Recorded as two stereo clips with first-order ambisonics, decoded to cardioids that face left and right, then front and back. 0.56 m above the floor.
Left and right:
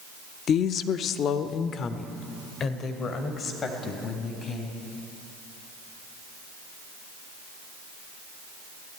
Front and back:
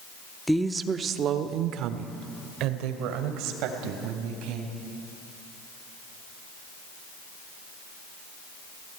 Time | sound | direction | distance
0.5 | a woman speaking | 85° left | 0.6 m